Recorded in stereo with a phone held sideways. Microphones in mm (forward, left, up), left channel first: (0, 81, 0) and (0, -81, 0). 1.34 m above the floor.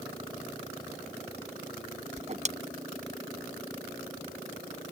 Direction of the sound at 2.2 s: 45° right (ahead or behind).